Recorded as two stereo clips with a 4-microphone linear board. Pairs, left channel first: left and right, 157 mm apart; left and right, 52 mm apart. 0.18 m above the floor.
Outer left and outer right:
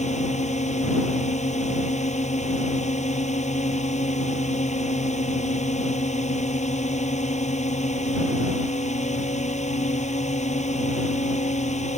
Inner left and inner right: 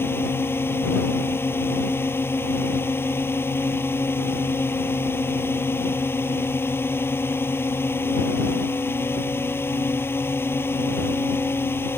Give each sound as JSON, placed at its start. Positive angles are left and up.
{"t": 0.0, "sound": "a drone", "side_deg": 45}